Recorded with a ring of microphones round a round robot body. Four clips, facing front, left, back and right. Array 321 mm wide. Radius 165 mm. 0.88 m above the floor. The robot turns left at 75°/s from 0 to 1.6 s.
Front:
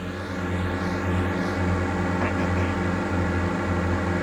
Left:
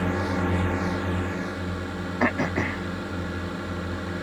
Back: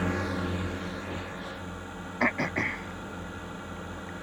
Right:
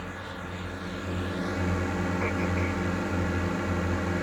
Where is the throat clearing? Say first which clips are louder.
Left 4 dB, front 4 dB; 100° left.